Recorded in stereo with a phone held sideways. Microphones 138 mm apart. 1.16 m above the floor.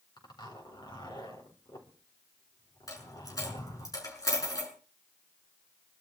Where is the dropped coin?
25° left (ahead or behind), 6.5 m.